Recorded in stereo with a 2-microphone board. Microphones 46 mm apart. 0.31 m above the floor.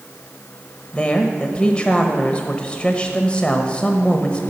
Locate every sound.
0.9 s a woman speaking: 25° left (ahead or behind), 1.0 m